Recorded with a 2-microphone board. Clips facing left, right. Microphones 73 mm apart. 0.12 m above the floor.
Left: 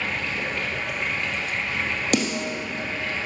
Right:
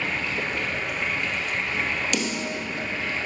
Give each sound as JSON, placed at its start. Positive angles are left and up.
{"t": 0.0, "sound": "running water", "side_deg": 0, "distance_m": 2.0}
{"t": 2.1, "sound": "a snare drum", "side_deg": 45, "distance_m": 1.9}